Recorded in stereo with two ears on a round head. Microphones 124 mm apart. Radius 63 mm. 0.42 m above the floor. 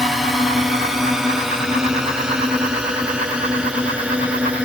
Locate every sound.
0.0 s a drone: centre (ahead or behind); by 4.7 s 10° right (ahead or behind)